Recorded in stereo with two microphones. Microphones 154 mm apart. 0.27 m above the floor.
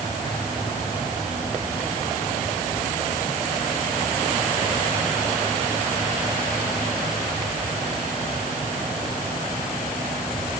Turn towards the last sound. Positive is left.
No sound to turn to.